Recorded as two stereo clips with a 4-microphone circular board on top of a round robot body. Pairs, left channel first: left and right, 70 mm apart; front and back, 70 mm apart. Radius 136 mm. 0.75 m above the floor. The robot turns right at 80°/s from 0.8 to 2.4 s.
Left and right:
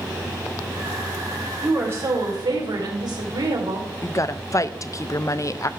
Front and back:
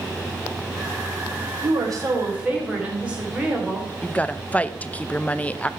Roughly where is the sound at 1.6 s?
Behind.